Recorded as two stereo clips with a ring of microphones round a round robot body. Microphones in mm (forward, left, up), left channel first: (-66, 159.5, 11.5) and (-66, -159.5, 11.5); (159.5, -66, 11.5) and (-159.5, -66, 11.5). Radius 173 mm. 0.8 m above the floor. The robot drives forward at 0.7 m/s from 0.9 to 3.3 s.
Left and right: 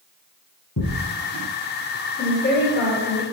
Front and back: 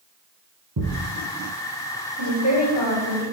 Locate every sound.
0.8 s a thud: 135° left, 3 m
2.2 s a woman speaking: 145° left, 2.5 m; by 3.2 s 150° left, 3 m